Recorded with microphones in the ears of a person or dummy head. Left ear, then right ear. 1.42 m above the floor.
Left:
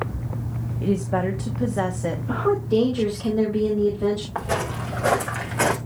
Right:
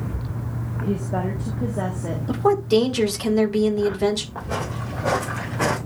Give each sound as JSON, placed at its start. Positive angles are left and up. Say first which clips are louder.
{"t": 0.8, "sound": "a woman speaking", "louder": "left 3 dB", "side_deg": 70, "distance_m": 1.1}
{"t": 2.3, "sound": "a woman speaking", "louder": "right 4 dB", "side_deg": -70, "distance_m": 1.9}
{"t": 4.3, "sound": "footsteps", "louder": "left 3 dB", "side_deg": 75, "distance_m": 6.5}